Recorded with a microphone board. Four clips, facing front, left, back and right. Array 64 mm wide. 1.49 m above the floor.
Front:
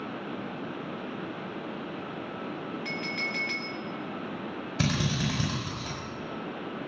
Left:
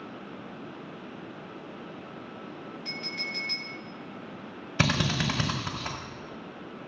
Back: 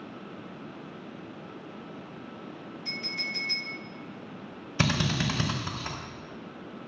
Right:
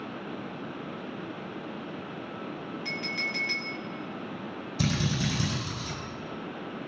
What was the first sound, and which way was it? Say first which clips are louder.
A clink: right 4 dB, front 2 dB; 20° right.